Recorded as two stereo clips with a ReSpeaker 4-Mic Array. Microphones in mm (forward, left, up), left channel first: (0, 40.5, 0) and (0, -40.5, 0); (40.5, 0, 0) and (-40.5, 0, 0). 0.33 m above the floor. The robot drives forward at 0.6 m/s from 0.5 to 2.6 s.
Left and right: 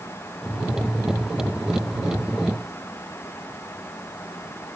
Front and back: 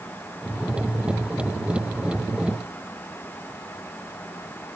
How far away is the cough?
No cough in this recording.